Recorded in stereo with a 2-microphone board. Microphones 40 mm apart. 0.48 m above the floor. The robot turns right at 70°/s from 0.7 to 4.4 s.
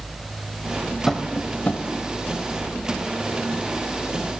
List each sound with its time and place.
1.1 s tapping: 5° left (ahead or behind), 0.9 m; by 1.8 s 60° left (ahead or behind), 0.9 m